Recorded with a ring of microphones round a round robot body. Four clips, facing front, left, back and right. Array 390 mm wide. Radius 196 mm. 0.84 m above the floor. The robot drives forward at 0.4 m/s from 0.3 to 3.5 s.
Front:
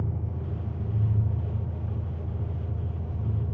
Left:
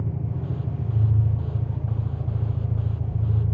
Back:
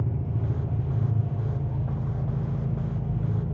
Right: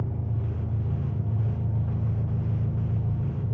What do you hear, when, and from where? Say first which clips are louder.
0.0 s an engine running: left 2 dB, back 3 dB; 175° left, 1.9 m